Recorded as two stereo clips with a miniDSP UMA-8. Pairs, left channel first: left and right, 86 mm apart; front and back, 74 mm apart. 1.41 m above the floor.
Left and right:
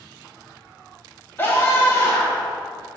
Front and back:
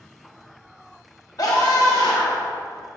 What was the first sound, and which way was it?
A scream, 30° left.